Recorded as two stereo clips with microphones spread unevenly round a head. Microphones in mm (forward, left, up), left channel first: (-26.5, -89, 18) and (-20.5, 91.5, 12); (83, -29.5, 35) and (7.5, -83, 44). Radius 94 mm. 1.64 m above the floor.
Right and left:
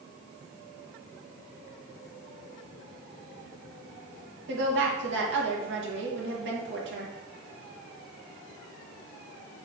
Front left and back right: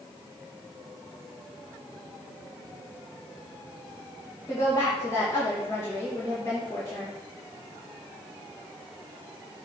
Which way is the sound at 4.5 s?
110° left.